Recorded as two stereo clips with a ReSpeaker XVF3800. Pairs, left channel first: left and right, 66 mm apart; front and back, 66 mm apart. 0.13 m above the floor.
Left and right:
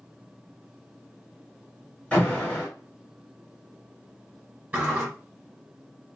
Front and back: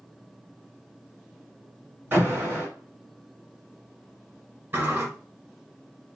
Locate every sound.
2.1 s an alarm: 145° left, 1.9 m
4.7 s a sliding door: 145° right, 1.6 m